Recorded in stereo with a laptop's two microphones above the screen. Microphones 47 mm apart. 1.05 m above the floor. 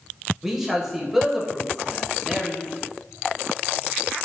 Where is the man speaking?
10° right (ahead or behind), 0.6 m.